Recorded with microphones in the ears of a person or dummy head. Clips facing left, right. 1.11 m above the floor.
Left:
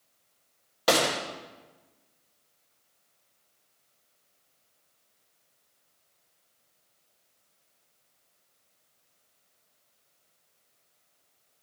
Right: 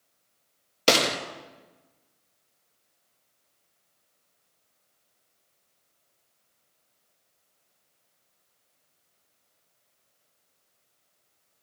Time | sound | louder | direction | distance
0.9 | a gunshot | right 1 dB | 40° right (ahead or behind) | 1.1 m